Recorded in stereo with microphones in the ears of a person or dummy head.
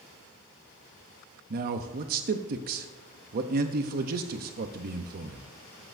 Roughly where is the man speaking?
Right.